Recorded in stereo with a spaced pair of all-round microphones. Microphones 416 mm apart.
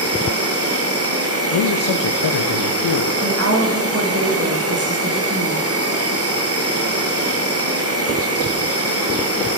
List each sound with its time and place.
0.0 s an insect: 35° right (ahead or behind), 0.8 m
1.5 s a man speaking: 85° left, 0.5 m
3.2 s a woman speaking: 35° right (ahead or behind), 1.0 m